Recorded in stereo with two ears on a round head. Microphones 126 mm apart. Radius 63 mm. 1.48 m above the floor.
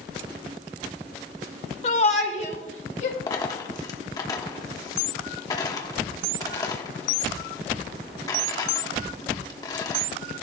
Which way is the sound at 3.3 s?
25° left (ahead or behind).